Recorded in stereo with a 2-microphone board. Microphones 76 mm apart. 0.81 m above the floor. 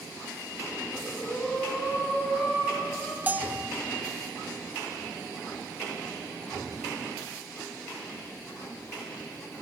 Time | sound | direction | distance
0.9 | breathing | 15° left (ahead or behind) | 4.5 m
3.3 | a bell | 20° right (ahead or behind) | 0.5 m